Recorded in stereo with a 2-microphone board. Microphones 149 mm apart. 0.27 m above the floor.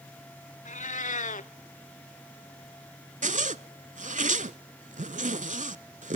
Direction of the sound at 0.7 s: 60° left (ahead or behind).